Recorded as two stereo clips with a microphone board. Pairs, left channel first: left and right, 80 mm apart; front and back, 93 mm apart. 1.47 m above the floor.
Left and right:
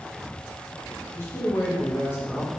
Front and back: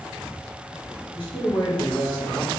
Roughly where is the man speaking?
Ahead left.